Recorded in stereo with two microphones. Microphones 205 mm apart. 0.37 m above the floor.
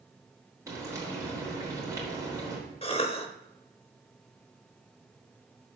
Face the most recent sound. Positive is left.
turn(degrees=25)  # may be behind; listen again after turning